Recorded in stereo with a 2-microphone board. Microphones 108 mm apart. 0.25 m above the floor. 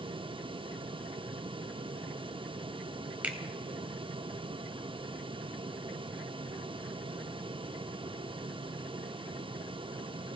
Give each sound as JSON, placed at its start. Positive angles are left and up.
{"t": 3.2, "sound": "a finger snap", "side_deg": -15, "distance_m": 1.1}